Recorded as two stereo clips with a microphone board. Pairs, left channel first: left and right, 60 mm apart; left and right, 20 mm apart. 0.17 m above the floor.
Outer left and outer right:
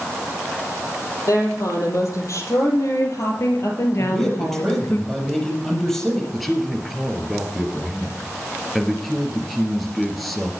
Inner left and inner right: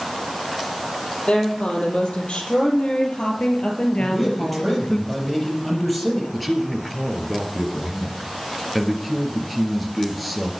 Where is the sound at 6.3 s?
Centre (ahead or behind), 3 m.